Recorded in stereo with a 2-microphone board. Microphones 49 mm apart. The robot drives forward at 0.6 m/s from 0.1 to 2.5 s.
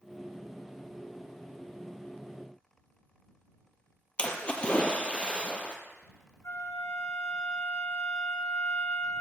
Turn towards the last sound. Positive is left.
turn(degrees=70)  # may be behind; listen again after turning